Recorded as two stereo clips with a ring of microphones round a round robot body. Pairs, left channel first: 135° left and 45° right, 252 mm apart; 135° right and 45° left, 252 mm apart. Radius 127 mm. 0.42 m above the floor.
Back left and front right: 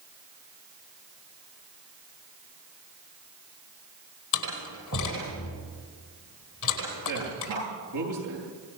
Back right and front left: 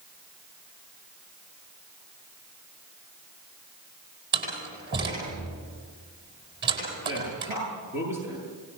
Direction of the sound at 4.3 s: 95° left.